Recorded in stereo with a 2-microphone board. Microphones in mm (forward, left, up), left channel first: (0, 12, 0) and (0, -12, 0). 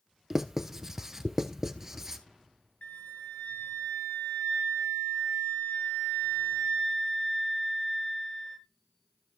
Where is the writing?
20° right (ahead or behind), 0.9 m.